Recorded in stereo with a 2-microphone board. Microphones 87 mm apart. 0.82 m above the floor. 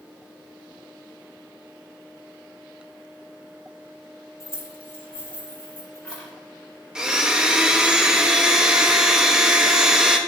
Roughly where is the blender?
Centre.